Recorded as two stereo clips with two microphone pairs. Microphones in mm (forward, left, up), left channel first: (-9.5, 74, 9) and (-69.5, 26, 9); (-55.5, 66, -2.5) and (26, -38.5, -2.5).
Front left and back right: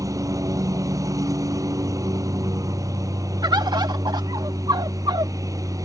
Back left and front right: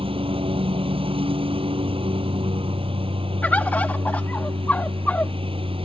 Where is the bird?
155° right.